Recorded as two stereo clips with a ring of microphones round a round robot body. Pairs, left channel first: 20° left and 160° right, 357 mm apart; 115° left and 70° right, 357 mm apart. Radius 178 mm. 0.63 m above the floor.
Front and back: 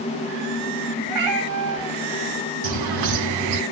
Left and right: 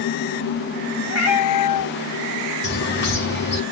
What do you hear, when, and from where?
1.1 s a cat meowing: 165° left, 5.5 m
2.6 s a bird: 175° left, 4 m